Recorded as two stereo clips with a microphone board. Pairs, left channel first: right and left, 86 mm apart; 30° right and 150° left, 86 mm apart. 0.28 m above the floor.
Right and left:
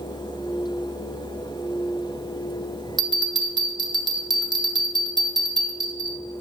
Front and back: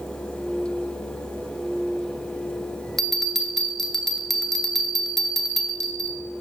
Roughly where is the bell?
Ahead left.